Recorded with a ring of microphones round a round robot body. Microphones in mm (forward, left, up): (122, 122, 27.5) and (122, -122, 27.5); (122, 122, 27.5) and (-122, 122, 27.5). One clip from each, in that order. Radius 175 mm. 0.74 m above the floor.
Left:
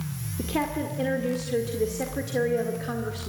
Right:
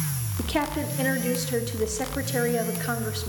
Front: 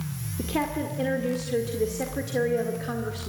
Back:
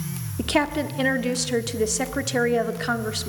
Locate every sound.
0.4 s a woman speaking: 155° right, 1.5 m